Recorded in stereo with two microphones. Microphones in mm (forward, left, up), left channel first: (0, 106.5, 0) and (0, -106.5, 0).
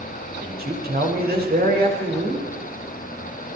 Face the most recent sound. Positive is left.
turn(degrees=-45)  # may be behind; listen again after turning